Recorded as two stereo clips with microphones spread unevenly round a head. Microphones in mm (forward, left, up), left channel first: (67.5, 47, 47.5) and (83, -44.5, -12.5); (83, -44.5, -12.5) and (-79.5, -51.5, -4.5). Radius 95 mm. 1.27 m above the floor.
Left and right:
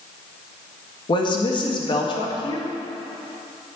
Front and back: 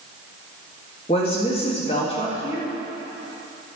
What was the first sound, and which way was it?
A woman speaking, 65° left.